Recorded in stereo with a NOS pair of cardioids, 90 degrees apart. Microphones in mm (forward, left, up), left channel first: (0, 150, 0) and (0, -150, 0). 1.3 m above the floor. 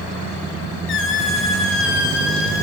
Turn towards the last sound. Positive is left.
turn(degrees=45)